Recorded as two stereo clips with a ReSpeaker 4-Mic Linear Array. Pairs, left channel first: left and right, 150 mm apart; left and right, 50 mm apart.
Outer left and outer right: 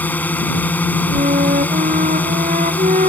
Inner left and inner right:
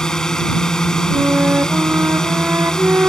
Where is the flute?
60° right (ahead or behind).